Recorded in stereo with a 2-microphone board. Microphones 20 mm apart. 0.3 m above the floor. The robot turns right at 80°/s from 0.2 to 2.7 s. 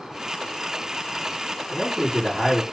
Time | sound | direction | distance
1.7 | a man speaking | 155° left | 2 m